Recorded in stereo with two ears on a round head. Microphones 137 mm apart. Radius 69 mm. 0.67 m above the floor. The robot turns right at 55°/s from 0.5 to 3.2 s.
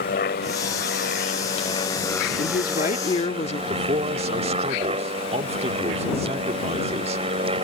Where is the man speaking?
40° right (ahead or behind).